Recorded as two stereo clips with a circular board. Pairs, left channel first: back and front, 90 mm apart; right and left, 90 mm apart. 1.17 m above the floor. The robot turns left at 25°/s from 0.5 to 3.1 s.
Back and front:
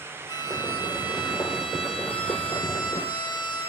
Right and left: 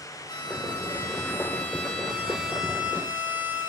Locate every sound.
0.3 s a violin: 135° right, 6 m; by 3.7 s 160° left, 6 m